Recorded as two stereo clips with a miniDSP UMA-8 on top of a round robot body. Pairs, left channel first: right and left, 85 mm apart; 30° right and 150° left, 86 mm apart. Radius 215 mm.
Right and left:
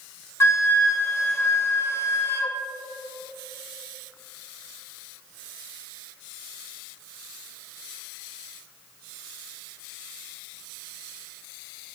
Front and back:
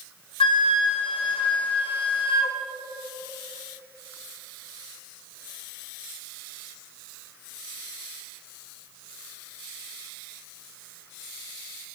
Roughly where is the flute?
Ahead right.